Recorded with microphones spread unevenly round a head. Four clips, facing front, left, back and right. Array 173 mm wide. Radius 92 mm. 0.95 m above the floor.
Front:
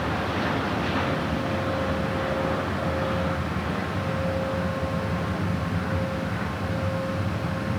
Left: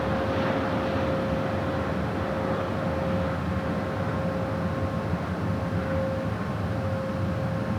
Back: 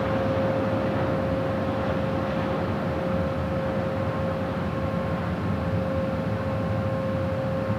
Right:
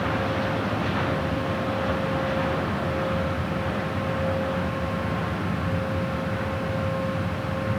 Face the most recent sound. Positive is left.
No sound to turn to.